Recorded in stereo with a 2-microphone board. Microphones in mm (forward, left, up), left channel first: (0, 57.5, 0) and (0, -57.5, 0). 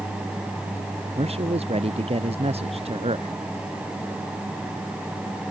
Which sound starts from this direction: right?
A man speaking, at 1.2 s.